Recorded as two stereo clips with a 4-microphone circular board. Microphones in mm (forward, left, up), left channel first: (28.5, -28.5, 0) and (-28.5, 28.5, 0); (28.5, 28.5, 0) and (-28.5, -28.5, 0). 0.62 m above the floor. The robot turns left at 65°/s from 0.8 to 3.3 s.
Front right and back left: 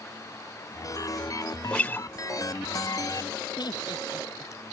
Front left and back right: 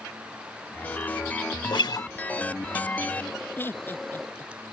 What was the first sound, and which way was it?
A guitar, 35° left.